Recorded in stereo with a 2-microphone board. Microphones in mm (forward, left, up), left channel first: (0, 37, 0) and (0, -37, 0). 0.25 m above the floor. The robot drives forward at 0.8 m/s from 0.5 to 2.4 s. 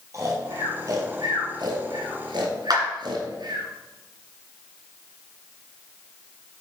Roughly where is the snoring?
Right.